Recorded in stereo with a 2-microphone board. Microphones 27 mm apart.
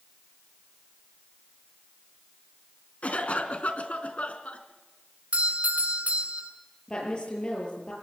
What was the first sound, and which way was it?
A cough, 55° left (ahead or behind).